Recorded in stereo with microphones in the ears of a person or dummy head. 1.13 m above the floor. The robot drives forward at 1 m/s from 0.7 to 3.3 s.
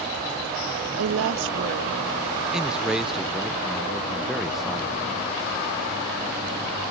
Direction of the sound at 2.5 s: 5° right (ahead or behind).